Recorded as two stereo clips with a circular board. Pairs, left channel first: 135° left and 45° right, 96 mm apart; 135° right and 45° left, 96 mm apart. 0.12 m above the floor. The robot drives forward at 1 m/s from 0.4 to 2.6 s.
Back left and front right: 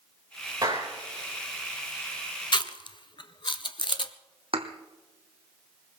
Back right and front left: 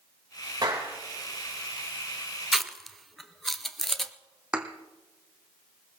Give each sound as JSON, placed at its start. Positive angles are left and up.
{"t": 0.6, "sound": "a clap", "azimuth_deg": -5, "distance_m": 8.0}
{"t": 2.5, "sound": "chewing", "azimuth_deg": 130, "distance_m": 0.7}
{"t": 4.5, "sound": "a thud", "azimuth_deg": -35, "distance_m": 1.6}